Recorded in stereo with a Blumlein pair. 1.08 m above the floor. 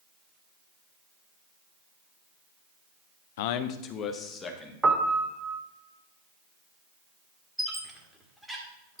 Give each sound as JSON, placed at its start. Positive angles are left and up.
{"t": 3.4, "sound": "a man speaking", "azimuth_deg": 55, "distance_m": 0.5}
{"t": 4.8, "sound": "a piano", "azimuth_deg": -15, "distance_m": 0.9}
{"t": 7.6, "sound": "a squeak", "azimuth_deg": -5, "distance_m": 1.9}